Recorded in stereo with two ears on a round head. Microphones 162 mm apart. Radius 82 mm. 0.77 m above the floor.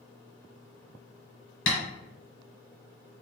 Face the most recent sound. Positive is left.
turn(degrees=75)  # may be behind; listen again after turning